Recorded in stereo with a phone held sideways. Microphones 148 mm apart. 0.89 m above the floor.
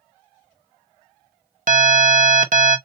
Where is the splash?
No splash in this recording.